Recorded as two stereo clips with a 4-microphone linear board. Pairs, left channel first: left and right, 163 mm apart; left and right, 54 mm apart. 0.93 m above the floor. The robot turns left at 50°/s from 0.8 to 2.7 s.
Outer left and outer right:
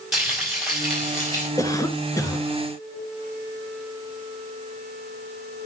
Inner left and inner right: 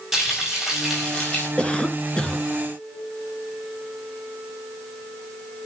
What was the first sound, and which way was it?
Frying, 175° right.